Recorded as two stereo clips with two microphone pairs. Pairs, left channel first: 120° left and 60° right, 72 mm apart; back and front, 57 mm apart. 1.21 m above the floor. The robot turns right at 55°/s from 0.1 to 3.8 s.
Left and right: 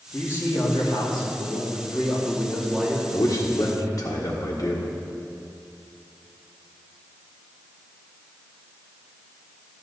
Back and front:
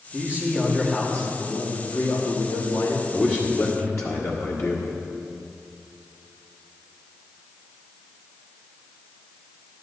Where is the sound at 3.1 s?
115° left, 1.5 m; by 4.9 s 155° left, 1.5 m.